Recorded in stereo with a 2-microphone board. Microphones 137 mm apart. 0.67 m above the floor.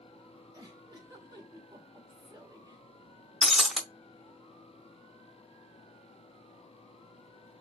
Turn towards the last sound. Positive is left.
turn(degrees=0)  # may be behind; listen again after turning